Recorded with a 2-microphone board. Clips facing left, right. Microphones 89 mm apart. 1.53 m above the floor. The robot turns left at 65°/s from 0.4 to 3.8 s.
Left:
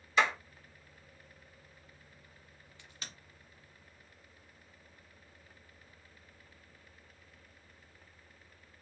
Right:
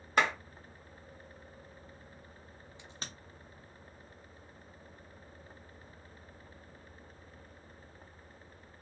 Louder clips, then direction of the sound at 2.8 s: Right 3 dB; 20° right (ahead or behind).